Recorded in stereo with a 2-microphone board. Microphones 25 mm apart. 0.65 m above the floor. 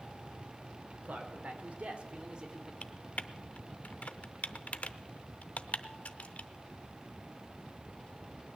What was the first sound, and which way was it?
A man speaking, 70° right (ahead or behind).